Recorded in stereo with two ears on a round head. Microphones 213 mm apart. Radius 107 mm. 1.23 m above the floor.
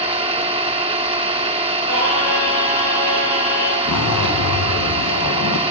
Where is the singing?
70° left (ahead or behind), 6.5 m.